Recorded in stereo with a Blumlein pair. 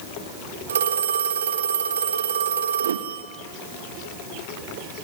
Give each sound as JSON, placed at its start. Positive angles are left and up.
{"t": 0.7, "sound": "a phone ringing", "azimuth_deg": -65, "distance_m": 3.5}
{"t": 2.8, "sound": "a whoosh", "azimuth_deg": -65, "distance_m": 0.8}